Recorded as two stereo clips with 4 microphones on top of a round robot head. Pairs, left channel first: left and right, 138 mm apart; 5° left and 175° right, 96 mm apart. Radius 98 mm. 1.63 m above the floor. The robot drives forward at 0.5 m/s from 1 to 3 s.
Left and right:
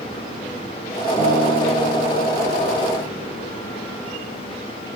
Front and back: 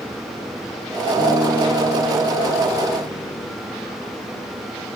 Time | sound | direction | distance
1.2 | a guitar | 150° right | 1.4 m